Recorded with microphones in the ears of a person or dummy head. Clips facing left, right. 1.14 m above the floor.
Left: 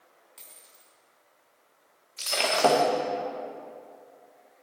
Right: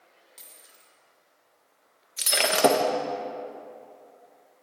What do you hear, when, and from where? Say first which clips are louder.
0.4 s a dropped coin: right 1 dB; centre (ahead or behind), 0.9 m
2.2 s breaking glass: right 2 dB; 25° right (ahead or behind), 0.6 m